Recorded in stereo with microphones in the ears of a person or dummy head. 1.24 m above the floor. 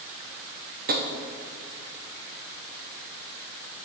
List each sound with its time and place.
0.9 s tapping: 45° right (ahead or behind), 1.0 m